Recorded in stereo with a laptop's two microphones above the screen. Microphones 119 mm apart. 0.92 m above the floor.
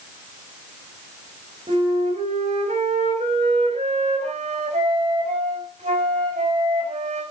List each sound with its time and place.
1.7 s a flute: 70° right (ahead or behind), 5 m